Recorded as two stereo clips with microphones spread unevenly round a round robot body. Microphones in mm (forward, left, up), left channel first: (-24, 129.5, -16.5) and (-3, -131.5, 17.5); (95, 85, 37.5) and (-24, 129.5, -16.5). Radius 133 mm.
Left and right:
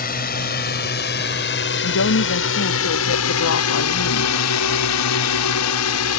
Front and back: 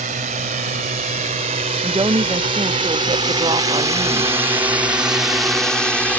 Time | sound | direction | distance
0.0 | a drone | 150° left | ?
1.8 | a woman speaking | 125° left | ?